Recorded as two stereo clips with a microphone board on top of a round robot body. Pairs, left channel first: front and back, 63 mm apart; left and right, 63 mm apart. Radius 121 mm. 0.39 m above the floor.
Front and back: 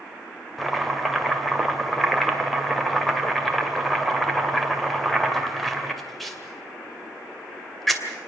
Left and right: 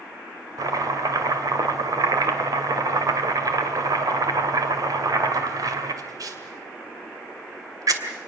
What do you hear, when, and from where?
0.6 s chopping: 90° right, 2.5 m